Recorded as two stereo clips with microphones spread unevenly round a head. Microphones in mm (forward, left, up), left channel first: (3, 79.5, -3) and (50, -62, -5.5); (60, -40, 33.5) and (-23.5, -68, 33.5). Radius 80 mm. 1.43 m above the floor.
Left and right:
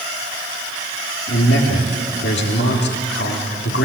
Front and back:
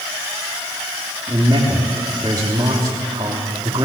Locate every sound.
1.3 s a man speaking: 135° left, 3 m